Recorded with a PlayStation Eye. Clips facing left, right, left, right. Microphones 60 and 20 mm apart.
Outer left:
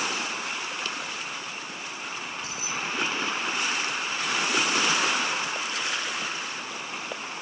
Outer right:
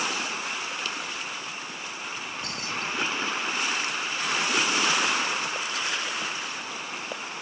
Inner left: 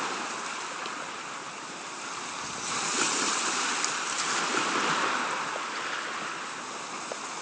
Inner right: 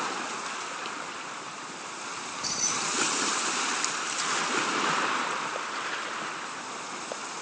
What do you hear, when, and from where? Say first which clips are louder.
2.2 s keys jangling: even, inner right 7 dB; 60° right (ahead or behind)